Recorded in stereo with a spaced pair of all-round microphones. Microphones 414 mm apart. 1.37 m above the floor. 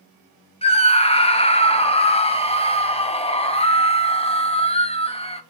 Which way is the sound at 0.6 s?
15° left (ahead or behind).